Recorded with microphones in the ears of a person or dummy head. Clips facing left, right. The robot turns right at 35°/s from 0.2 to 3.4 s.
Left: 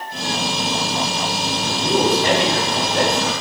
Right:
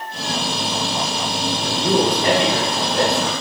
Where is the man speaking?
45° right, 0.9 m; by 3.3 s 10° left, 0.9 m.